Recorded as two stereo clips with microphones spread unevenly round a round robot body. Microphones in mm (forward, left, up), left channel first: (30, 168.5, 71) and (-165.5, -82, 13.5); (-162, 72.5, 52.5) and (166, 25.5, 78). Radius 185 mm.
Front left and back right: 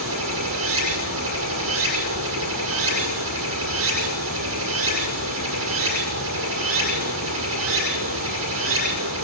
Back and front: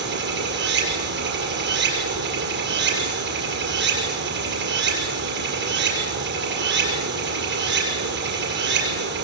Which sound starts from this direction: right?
Running water, at 0.0 s.